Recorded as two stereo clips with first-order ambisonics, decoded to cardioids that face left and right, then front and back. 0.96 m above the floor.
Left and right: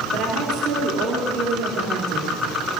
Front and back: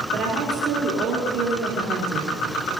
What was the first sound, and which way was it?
A woman speaking, 130° right.